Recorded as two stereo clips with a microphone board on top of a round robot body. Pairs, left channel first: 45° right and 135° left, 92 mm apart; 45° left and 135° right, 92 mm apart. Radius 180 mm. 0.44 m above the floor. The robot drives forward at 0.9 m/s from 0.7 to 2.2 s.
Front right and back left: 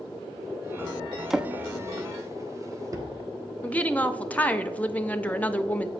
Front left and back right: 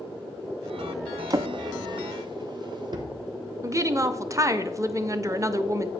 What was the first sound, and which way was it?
A drawer, 140° right.